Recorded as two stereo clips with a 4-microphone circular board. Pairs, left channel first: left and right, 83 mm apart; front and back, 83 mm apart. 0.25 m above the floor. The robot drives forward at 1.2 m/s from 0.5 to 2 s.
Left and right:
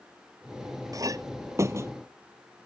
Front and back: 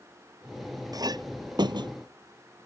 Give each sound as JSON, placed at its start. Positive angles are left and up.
{"t": 0.9, "sound": "a clink", "azimuth_deg": -135}